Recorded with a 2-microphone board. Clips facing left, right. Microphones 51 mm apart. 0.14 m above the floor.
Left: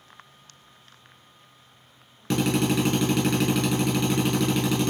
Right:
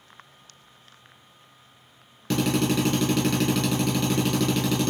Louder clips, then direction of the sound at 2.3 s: Even; centre (ahead or behind).